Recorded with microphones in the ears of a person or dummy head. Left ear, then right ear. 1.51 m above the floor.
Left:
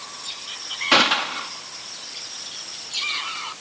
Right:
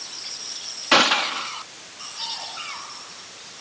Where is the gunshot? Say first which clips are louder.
Even; 10° right (ahead or behind).